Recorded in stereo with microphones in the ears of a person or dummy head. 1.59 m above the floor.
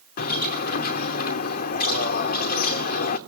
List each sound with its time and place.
0.2 s a bird: 50° left (ahead or behind), 1.9 m